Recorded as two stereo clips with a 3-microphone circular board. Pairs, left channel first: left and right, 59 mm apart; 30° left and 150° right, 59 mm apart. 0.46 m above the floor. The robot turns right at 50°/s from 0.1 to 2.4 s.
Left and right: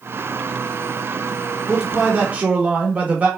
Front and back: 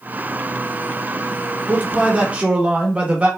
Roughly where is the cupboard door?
No cupboard door in this recording.